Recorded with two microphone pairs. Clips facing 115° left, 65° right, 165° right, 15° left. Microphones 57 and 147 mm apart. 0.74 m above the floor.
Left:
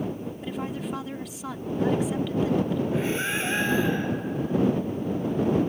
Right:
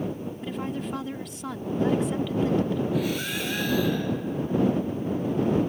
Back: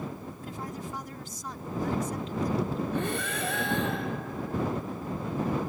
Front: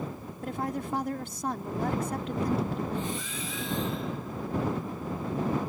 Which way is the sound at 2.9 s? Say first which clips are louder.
Left 1 dB, back 3 dB; 175° left.